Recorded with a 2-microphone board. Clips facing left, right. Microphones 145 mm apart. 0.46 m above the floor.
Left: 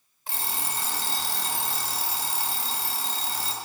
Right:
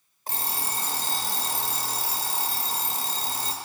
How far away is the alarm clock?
About 1.0 m.